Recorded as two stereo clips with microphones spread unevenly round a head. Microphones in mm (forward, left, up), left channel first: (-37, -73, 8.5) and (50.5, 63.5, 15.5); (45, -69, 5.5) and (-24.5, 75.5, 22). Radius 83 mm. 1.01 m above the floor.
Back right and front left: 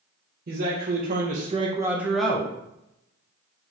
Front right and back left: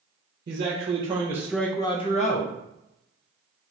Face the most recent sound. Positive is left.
turn(degrees=-50)